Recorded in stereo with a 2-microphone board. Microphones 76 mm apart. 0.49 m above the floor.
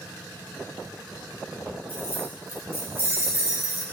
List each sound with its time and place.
1.9 s keys jangling: 30° right (ahead or behind), 7 m; by 3.8 s 40° right (ahead or behind), 6.5 m